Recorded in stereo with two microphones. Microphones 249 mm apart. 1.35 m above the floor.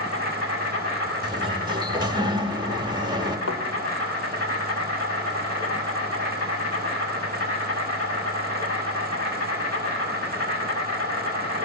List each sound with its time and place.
0.0 s an insect: 85° left, 6.5 m
1.2 s a sliding door: 15° right (ahead or behind), 1.7 m
3.5 s a thud: 70° left (ahead or behind), 2.5 m